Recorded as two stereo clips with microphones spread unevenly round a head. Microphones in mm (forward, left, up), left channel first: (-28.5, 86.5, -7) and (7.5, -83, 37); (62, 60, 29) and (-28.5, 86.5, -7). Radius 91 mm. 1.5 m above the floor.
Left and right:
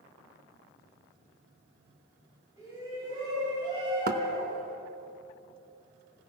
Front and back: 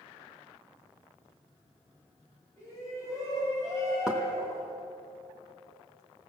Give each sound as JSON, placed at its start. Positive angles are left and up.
{"t": 2.6, "sound": "a shout", "azimuth_deg": -150, "distance_m": 9.5}
{"t": 4.1, "sound": "knocking", "azimuth_deg": -100, "distance_m": 1.2}